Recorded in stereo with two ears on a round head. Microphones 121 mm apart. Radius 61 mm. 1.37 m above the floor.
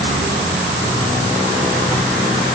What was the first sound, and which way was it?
Only background noise.